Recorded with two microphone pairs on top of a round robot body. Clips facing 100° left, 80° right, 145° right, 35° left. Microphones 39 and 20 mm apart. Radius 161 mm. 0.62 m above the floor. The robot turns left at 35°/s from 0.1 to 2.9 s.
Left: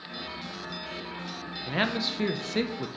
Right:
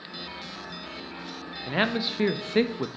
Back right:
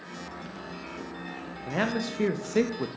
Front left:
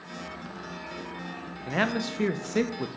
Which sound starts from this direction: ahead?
A man speaking, at 1.7 s.